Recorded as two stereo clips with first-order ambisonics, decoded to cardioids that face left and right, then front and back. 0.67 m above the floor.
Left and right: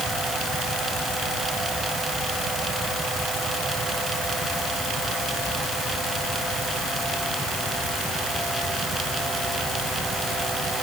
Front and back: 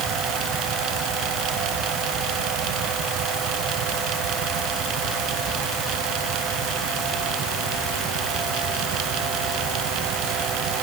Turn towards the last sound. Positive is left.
No sound to turn to.